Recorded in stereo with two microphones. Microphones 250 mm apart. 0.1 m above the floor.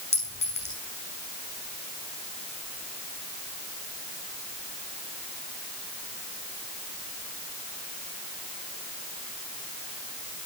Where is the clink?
40° right (ahead or behind), 5 m.